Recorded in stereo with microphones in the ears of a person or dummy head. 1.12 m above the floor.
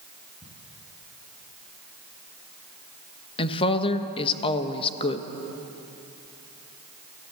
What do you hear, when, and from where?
0.4 s ticking: 25° left (ahead or behind), 7 m
3.4 s a woman speaking: 30° left (ahead or behind), 1.2 m